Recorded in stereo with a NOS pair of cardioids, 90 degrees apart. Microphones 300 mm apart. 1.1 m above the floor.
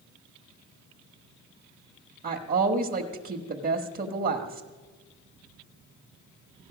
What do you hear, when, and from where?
2.2 s a woman speaking: 30° right, 1.3 m